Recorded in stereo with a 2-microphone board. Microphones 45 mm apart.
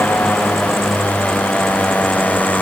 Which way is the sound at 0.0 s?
40° left (ahead or behind).